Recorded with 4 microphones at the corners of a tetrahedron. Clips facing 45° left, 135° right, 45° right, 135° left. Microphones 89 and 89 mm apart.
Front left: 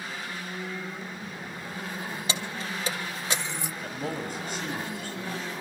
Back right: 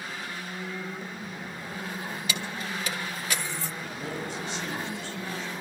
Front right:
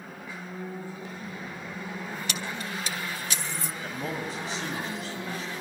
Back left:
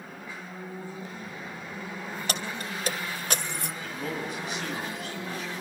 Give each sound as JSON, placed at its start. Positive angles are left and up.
{"t": 2.3, "sound": "keys jangling", "azimuth_deg": 95, "distance_m": 3.0}
{"t": 3.8, "sound": "a man speaking", "azimuth_deg": 10, "distance_m": 6.0}